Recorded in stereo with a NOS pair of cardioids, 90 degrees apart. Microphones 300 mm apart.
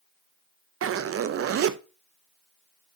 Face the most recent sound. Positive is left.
turn(degrees=-50)